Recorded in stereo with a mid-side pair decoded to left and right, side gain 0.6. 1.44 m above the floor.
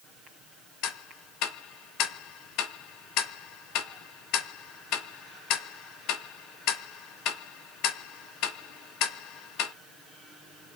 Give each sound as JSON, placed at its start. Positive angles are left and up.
{"t": 0.8, "sound": "ticking", "azimuth_deg": 70, "distance_m": 0.6}